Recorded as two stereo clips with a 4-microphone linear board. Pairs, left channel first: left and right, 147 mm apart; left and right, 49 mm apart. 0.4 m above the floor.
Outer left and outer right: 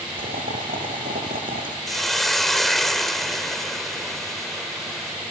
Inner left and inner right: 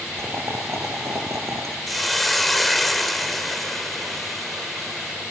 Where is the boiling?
75° right (ahead or behind), 3 m.